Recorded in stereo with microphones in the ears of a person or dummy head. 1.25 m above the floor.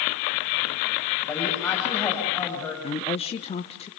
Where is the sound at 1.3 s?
5° left (ahead or behind), 6.5 m.